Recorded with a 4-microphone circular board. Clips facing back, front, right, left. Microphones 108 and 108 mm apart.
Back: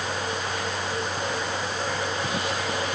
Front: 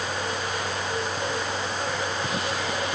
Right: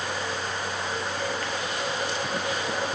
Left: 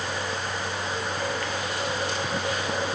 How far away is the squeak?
I don't hear a squeak.